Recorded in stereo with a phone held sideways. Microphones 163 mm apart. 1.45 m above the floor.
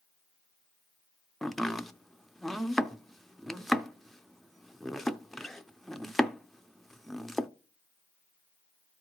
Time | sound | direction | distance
1.4 | chopping | centre (ahead or behind) | 0.5 m